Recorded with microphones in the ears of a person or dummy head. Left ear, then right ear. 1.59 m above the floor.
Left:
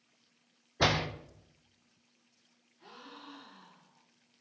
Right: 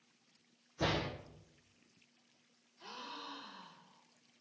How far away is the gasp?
About 1.6 m.